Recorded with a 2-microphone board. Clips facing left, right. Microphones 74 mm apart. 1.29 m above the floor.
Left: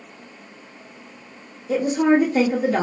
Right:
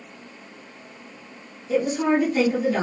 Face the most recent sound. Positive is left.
turn(degrees=50)  # may be behind; listen again after turning